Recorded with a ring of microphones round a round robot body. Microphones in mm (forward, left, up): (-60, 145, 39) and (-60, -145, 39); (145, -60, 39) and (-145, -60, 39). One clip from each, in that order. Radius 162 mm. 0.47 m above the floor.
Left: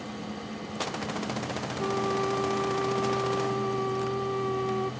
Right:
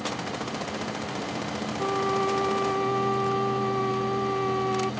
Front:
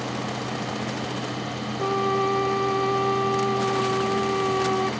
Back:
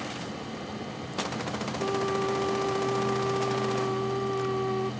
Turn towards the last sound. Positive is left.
turn(degrees=-20)